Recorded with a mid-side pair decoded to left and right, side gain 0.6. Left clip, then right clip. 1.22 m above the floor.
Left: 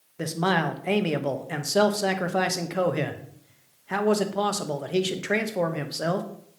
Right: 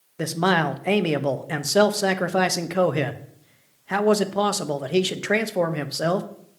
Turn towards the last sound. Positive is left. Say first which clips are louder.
# right 3 dB
turn(degrees=-25)